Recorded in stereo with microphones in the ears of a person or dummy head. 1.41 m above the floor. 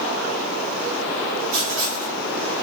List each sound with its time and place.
1.5 s writing: 70° right (ahead or behind), 2.5 m